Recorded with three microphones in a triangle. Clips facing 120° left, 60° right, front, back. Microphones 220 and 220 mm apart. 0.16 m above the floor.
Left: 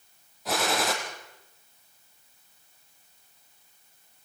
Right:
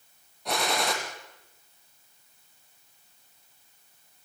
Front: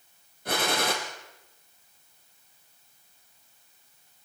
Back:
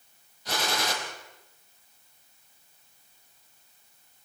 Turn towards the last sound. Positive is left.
turn(degrees=35)